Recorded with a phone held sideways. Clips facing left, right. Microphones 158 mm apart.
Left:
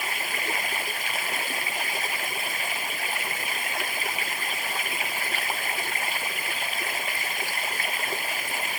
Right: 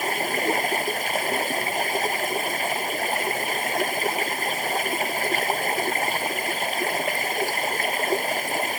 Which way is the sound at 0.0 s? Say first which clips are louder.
Right 9 dB; 45° right (ahead or behind).